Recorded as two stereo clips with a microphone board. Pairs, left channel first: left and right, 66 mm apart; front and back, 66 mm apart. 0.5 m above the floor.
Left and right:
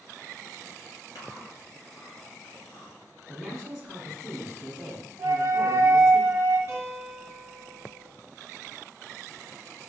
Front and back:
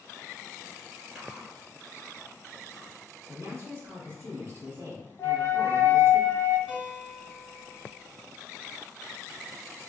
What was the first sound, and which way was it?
Chewing, 95° left.